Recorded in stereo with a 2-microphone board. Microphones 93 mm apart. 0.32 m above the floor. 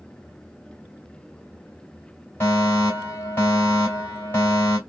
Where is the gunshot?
I don't hear a gunshot.